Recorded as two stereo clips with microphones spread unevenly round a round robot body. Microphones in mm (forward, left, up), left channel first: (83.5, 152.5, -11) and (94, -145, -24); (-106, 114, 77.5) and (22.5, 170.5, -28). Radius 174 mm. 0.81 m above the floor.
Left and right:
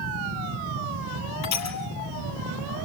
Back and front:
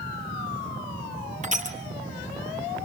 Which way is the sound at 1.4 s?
65° left.